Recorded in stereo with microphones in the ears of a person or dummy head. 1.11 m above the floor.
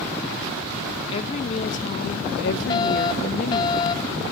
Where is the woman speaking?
30° left (ahead or behind); by 3.7 s 40° left (ahead or behind).